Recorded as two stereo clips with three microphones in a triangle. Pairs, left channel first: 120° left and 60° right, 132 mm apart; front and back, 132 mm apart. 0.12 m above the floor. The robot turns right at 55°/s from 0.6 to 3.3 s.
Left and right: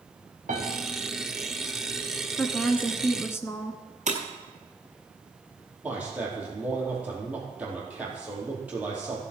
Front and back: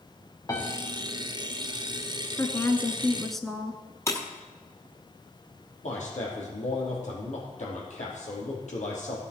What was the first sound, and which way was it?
A piano, 65° right.